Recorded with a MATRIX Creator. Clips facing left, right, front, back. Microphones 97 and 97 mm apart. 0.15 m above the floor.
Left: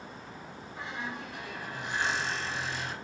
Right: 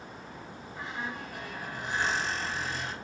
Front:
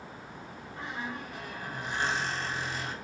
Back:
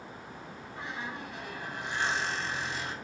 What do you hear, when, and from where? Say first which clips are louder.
0.8 s a squeak: right 1 dB, front 1 dB; 45° right, 1.3 m